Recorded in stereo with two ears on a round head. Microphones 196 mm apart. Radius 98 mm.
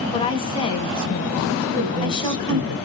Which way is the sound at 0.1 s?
20° left (ahead or behind).